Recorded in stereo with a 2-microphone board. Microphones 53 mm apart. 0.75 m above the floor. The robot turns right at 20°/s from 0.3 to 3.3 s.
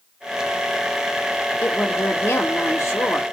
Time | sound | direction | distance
1.6 | a woman speaking | 55° left | 1.2 m